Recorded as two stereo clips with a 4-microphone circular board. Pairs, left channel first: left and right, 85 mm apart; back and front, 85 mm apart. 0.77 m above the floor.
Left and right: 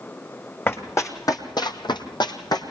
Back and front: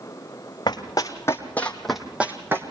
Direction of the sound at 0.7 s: 150° left.